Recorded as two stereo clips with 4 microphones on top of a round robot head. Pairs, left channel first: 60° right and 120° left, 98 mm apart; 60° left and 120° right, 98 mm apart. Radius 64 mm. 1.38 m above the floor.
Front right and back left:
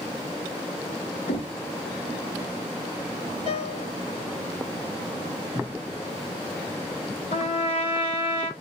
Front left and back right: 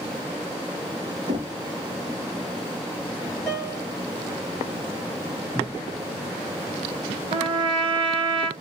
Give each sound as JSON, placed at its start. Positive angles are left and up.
{"t": 1.3, "sound": "knocking", "azimuth_deg": -80, "distance_m": 1.1}
{"t": 3.5, "sound": "a piano", "azimuth_deg": -15, "distance_m": 1.2}
{"t": 5.5, "sound": "a cupboard door", "azimuth_deg": 5, "distance_m": 1.2}
{"t": 7.3, "sound": "a trumpet", "azimuth_deg": -80, "distance_m": 1.4}